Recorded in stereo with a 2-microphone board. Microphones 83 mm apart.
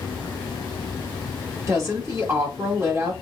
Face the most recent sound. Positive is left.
turn(degrees=-35)  # may be behind; listen again after turning